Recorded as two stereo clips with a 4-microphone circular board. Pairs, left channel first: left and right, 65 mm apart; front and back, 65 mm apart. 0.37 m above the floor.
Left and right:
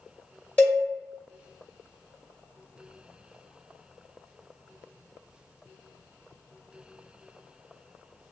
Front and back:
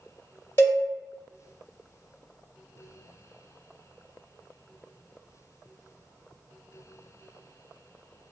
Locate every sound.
0.6 s a cowbell: 35° left, 1.6 m